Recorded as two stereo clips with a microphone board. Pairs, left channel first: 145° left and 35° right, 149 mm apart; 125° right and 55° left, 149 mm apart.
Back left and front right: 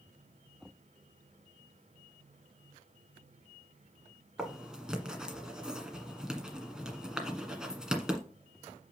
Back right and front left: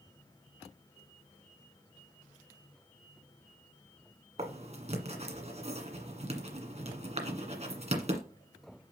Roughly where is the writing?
Ahead left.